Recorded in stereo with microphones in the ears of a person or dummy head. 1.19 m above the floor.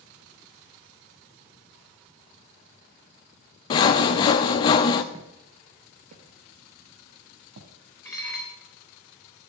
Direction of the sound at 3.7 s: 25° left (ahead or behind).